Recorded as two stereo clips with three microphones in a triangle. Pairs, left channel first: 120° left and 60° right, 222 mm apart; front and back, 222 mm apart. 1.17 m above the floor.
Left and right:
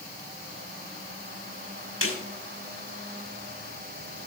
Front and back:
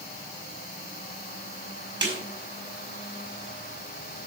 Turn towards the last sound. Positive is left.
turn(degrees=140)